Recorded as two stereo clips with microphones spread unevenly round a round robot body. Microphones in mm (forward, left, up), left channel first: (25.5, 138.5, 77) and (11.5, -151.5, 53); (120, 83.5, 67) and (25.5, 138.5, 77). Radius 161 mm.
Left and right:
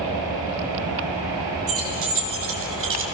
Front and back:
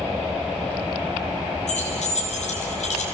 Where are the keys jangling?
50° right, 4 m; by 3.0 s 45° right, 2.5 m.